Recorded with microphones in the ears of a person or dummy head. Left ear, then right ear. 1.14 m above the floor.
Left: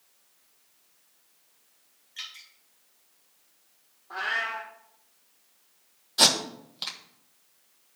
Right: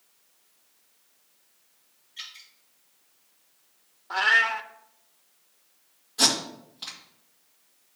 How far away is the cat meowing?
About 0.6 m.